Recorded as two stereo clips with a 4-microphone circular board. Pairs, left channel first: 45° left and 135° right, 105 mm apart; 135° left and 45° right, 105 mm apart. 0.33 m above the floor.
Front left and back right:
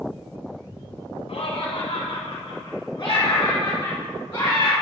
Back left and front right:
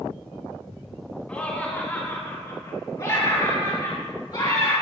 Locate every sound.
1.3 s laughter: 60° left, 2.5 m; by 4.7 s 115° left, 4.5 m